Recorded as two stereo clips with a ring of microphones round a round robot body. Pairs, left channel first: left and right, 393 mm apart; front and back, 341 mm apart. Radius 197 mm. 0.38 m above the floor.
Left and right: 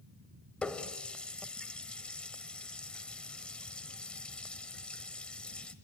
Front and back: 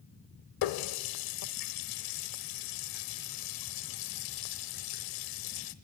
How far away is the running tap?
About 0.9 m.